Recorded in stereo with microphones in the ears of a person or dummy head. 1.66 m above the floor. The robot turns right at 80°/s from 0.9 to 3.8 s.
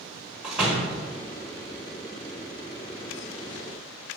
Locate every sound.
0.4 s a door slam: 5° right (ahead or behind), 1.4 m; by 1.0 s 5° left (ahead or behind), 1.4 m